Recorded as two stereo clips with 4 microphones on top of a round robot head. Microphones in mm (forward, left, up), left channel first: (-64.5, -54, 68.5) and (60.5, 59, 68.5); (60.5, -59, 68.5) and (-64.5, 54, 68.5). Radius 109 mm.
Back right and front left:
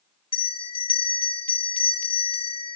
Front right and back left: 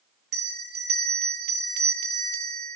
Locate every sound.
0.3 s a bell: 160° left, 4 m